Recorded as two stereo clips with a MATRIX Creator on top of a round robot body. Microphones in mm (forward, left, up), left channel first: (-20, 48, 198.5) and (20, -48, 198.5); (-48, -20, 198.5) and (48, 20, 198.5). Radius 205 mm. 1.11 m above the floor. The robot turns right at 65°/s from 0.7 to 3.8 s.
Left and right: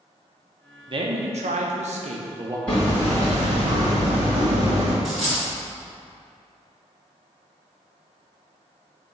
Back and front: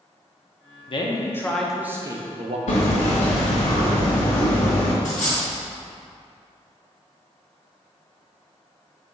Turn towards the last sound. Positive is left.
turn(degrees=-160)